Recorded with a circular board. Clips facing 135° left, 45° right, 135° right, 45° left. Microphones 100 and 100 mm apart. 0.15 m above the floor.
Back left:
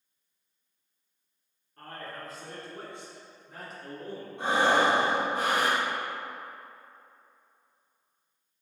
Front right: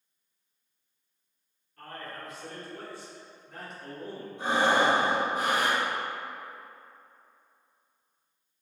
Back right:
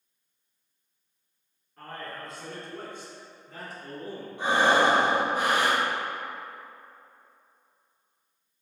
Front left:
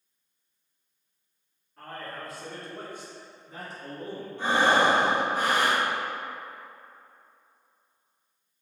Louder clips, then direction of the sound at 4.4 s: Even, even; 150° left.